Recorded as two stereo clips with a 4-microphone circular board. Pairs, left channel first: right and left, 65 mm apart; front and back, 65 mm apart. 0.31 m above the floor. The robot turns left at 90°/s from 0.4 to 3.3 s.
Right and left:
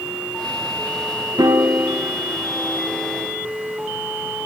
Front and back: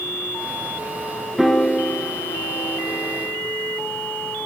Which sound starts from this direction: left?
A piano, at 1.4 s.